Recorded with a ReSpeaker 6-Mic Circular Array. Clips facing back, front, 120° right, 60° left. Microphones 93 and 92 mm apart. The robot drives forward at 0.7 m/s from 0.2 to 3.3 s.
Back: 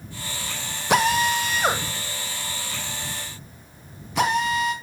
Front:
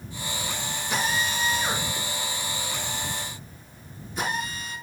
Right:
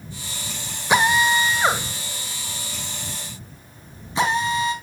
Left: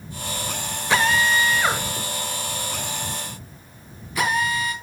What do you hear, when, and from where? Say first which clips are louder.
0.9 s a drill: back 8 dB, right 2 dB; 165° left, 1.3 m; by 4.7 s 175° left, 3 m